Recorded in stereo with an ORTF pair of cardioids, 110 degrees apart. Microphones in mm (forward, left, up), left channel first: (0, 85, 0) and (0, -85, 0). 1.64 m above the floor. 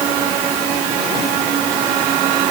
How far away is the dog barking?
I don't hear a dog barking.